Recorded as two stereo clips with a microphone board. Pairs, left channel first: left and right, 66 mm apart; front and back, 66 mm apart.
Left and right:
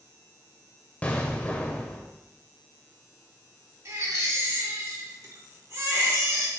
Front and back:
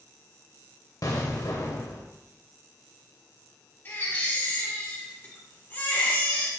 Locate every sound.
1.0 s an explosion: 20° left, 1.1 m
3.9 s a baby crying: 55° right, 1.9 m